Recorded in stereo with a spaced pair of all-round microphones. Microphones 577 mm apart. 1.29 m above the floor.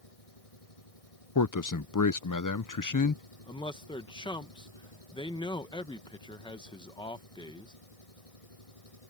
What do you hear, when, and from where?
0.0 s an engine running: 75° left (ahead or behind)
1.4 s a man speaking: 35° left (ahead or behind)
3.5 s a man speaking: 10° left (ahead or behind)